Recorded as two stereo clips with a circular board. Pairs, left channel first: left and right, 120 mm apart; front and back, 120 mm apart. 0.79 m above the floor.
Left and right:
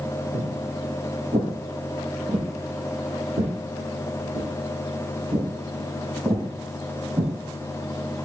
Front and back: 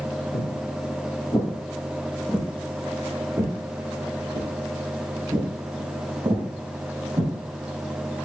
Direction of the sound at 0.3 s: 40° right.